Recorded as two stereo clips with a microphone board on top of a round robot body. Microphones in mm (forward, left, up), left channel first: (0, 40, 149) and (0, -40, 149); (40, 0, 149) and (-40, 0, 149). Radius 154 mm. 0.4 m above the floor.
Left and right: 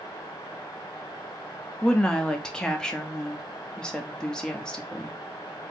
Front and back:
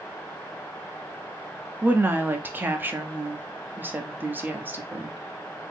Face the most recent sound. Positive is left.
turn(degrees=160)